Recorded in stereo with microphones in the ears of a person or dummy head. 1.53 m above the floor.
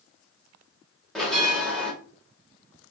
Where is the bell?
5° left (ahead or behind), 1.9 m.